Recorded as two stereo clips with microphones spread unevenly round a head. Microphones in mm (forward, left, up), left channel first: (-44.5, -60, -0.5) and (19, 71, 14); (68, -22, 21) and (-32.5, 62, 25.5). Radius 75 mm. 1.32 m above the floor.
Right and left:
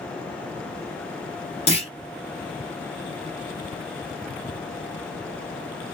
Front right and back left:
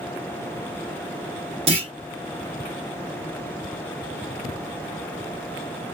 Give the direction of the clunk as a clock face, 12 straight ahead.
6 o'clock.